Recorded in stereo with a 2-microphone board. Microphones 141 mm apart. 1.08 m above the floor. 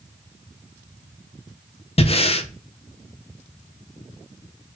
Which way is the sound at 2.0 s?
45° left (ahead or behind).